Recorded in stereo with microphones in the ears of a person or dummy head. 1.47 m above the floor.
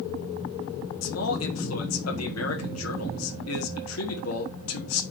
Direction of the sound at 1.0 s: 80° left.